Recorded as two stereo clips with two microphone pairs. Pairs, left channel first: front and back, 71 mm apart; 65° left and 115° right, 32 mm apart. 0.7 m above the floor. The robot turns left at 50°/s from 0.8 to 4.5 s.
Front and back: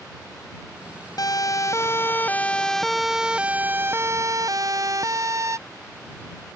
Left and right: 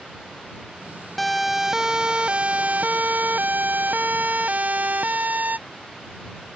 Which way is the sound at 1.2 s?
20° right.